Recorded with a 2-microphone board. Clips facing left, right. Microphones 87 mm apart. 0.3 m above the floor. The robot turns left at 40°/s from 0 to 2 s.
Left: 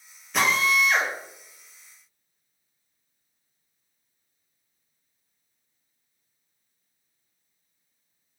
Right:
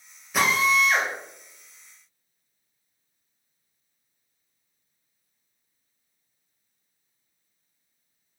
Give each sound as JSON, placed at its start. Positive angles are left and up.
{"t": 0.3, "sound": "a drill", "side_deg": -5, "distance_m": 0.7}